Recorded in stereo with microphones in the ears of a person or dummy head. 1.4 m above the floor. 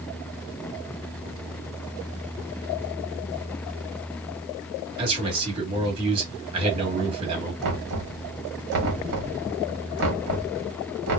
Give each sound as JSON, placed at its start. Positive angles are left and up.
{"t": 5.0, "sound": "a man speaking", "side_deg": -35, "distance_m": 1.5}
{"t": 7.6, "sound": "knocking", "side_deg": -60, "distance_m": 1.2}